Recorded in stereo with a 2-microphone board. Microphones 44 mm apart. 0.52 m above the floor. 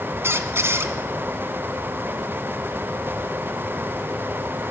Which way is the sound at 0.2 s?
65° right (ahead or behind).